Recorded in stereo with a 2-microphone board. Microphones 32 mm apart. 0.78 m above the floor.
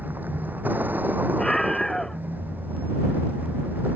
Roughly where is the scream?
Centre.